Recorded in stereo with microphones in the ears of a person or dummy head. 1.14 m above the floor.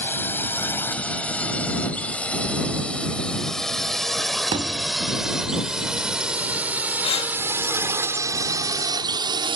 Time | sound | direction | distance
0.0 | a drone | 10° left (ahead or behind) | ?
4.5 | a thud | 20° right (ahead or behind) | ?
7.0 | breathing | 30° left (ahead or behind) | ?